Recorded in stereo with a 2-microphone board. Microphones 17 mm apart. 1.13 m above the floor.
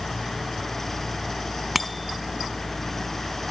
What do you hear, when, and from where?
1.8 s a bicycle bell: 5° right (ahead or behind)